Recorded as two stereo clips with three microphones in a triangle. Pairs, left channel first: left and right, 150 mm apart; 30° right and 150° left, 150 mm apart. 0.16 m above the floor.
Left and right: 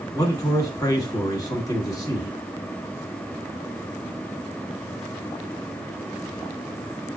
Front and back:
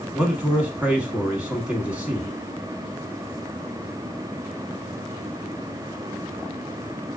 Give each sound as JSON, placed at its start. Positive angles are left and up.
{"t": 0.1, "sound": "a man speaking", "azimuth_deg": 80, "distance_m": 1.1}